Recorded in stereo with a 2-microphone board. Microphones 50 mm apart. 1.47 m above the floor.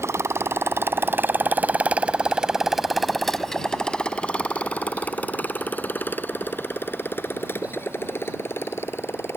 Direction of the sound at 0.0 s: 65° right (ahead or behind).